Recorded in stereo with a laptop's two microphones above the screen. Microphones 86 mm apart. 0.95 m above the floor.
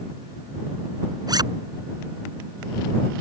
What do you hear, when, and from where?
1.3 s a zipper: 50° right (ahead or behind)